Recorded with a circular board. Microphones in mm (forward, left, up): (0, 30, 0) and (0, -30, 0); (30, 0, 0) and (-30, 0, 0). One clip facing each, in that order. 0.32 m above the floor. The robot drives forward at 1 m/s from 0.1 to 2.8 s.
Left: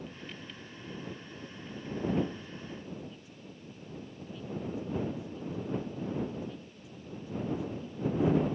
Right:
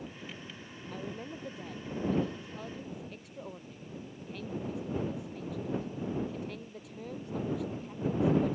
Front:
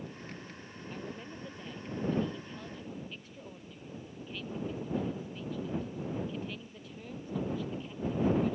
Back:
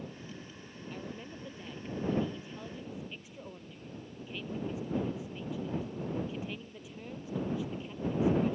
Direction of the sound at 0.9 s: 90° right.